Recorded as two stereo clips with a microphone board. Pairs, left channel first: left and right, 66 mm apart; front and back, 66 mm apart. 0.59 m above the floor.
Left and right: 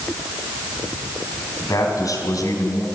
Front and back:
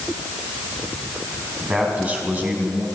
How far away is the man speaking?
About 4 m.